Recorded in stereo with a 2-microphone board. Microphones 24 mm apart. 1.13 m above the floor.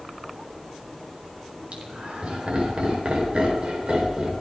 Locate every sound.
1.7 s laughter: 60° right (ahead or behind), 4.5 m; by 4.3 s 40° right (ahead or behind), 4 m